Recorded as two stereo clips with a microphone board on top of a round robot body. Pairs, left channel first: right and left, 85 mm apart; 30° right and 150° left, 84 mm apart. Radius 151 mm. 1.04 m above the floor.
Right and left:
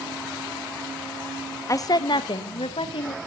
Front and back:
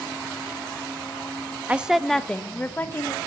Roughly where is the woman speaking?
Behind right.